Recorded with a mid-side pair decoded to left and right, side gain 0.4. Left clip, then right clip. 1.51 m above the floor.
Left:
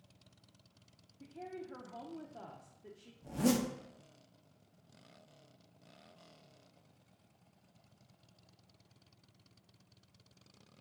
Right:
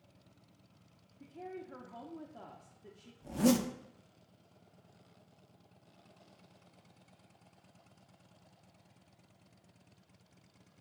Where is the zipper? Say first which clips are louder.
Right 3 dB; 20° right, 0.5 m.